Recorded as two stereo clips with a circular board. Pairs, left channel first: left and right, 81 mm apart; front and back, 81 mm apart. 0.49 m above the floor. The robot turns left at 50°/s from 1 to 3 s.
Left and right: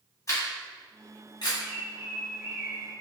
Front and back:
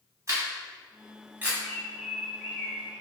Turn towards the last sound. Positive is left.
turn(degrees=-130)